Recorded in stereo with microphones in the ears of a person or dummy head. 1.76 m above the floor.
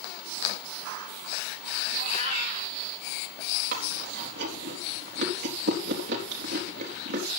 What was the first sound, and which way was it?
A cat meowing, 45° right (ahead or behind).